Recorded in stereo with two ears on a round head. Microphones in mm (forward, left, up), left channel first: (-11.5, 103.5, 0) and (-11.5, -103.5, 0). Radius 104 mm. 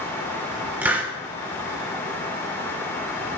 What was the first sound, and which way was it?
A hiss, 10° right (ahead or behind).